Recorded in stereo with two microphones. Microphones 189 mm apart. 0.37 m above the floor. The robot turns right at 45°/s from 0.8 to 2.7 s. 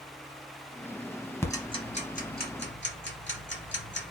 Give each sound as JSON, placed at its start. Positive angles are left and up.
{"t": 1.4, "sound": "ticking", "side_deg": 15, "distance_m": 1.2}